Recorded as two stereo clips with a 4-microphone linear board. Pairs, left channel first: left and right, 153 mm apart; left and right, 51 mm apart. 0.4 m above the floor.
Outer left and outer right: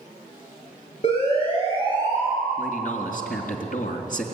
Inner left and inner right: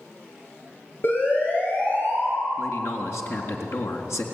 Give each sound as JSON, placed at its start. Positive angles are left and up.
{"t": 1.0, "sound": "a siren", "side_deg": 40, "distance_m": 8.0}
{"t": 2.6, "sound": "a man speaking", "side_deg": 65, "distance_m": 3.5}